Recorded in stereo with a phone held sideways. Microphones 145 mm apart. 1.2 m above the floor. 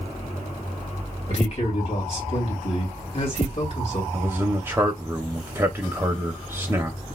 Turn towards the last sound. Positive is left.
turn(degrees=-20)  # may be behind; listen again after turning